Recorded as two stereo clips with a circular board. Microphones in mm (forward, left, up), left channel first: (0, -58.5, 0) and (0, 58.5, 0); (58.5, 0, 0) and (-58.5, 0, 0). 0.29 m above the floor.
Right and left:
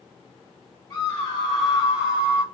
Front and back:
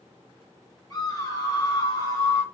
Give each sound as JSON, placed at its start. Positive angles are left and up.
{"t": 0.9, "sound": "a scream", "azimuth_deg": -35, "distance_m": 1.3}